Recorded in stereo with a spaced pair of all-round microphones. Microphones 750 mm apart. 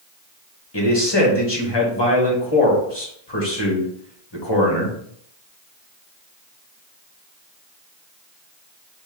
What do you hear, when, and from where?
0.7 s a man speaking: 35° left (ahead or behind), 1.3 m